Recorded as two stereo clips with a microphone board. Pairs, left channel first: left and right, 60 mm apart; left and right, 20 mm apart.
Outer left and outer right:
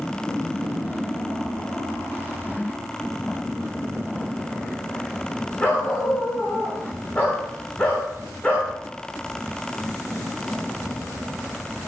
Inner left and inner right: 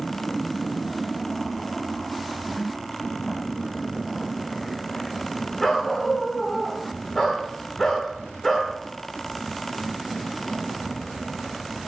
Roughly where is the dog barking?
Left.